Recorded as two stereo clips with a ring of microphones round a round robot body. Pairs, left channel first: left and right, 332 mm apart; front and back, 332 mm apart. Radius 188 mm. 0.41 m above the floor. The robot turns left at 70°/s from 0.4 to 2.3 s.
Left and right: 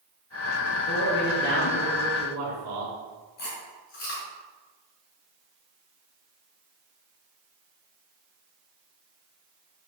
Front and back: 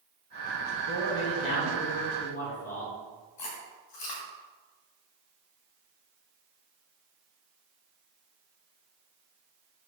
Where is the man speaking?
55° left, 4.5 m; by 2.9 s 50° right, 4.5 m.